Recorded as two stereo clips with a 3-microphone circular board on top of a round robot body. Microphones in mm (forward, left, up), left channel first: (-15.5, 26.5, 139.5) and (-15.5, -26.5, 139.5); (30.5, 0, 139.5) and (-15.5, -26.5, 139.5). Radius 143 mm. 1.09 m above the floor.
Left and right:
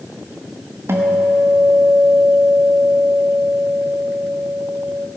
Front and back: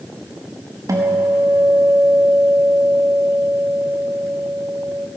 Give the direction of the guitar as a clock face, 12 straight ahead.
4 o'clock.